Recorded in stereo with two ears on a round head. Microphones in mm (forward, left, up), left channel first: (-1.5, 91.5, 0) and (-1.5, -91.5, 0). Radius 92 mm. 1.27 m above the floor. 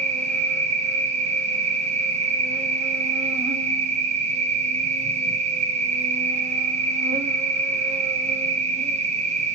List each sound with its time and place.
0.0 s an insect: 35° right (ahead or behind), 0.8 m